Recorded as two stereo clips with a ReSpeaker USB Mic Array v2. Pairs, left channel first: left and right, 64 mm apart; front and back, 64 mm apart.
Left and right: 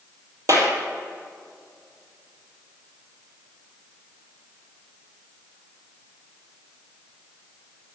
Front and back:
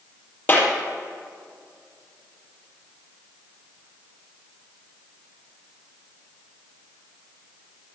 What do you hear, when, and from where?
0.5 s a clap: 60° right, 4 m